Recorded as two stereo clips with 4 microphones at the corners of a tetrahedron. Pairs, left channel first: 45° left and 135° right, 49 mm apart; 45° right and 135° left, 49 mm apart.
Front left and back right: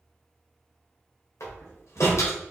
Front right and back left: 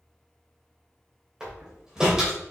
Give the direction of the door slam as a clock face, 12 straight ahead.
10 o'clock.